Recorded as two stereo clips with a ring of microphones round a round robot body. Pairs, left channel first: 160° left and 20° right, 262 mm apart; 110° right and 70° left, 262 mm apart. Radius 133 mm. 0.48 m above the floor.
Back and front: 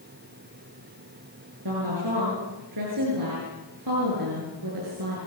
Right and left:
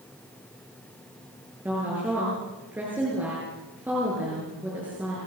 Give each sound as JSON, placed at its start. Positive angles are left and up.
{"t": 1.6, "sound": "a woman speaking", "azimuth_deg": -15, "distance_m": 8.0}